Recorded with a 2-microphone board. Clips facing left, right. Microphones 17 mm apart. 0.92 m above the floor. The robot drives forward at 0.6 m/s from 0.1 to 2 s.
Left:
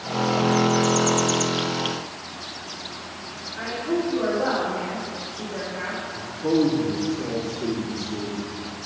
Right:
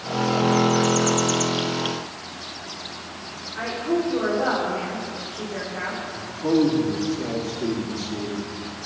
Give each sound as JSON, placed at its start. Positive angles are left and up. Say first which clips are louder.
{"t": 3.5, "sound": "a woman speaking", "louder": "right 2 dB", "side_deg": -75, "distance_m": 3.0}
{"t": 6.1, "sound": "a man speaking", "louder": "right 1 dB", "side_deg": -75, "distance_m": 2.0}